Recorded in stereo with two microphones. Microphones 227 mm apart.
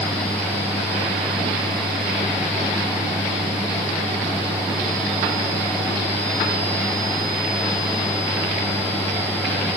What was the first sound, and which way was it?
Only background noise.